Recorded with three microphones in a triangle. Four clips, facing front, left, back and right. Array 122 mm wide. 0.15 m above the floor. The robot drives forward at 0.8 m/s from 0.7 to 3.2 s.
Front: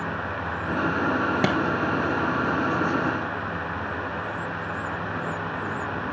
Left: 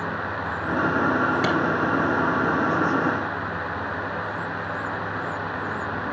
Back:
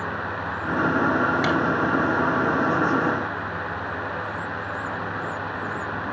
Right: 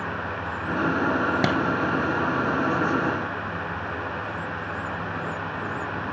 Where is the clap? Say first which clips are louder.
Even, even; 55° right, 1.8 m.